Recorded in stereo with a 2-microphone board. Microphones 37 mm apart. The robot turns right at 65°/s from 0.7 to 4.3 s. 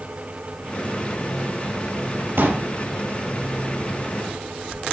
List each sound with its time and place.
2.4 s a pop: 80° right, 5.5 m; by 2.6 s 65° right (ahead or behind), 5.5 m